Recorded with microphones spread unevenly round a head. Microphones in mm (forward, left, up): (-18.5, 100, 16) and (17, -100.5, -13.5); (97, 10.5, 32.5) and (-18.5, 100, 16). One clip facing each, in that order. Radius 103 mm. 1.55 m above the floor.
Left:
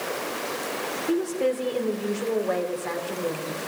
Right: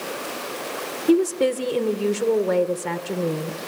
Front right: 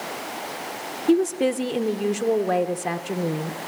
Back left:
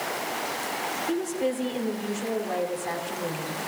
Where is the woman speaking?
40° right, 1.1 m.